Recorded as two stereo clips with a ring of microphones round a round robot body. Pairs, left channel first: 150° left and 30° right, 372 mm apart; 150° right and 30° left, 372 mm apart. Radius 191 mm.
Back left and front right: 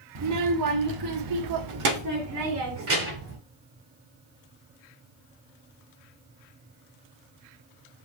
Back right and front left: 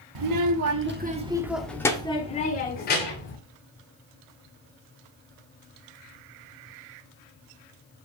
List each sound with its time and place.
0.1 s a child speaking: 15° left, 1.2 m; by 3.4 s 90° right, 2.5 m